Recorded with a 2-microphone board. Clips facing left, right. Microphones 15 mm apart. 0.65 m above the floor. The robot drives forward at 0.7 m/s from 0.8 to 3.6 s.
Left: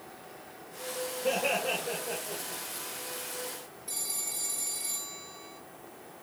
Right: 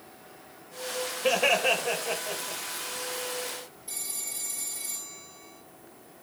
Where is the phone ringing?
10° left (ahead or behind), 3 m.